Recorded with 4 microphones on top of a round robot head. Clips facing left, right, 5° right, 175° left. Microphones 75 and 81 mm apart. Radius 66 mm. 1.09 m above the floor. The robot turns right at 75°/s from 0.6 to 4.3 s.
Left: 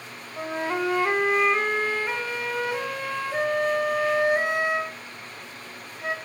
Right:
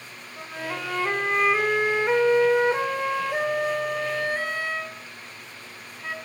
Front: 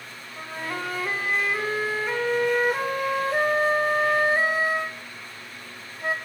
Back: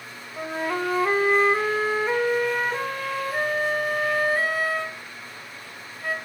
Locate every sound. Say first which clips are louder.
0.4 s a flute: left 6 dB, back 6 dB; 120° left, 0.5 m; by 6.2 s 35° left, 0.5 m